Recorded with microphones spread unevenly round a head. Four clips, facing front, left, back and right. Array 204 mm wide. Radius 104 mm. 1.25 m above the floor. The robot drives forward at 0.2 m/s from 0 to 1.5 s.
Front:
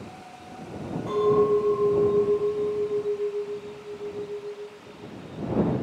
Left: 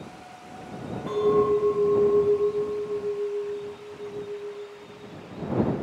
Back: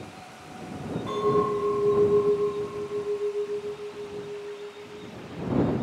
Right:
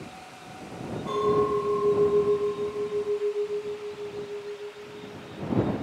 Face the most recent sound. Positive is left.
turn(degrees=75)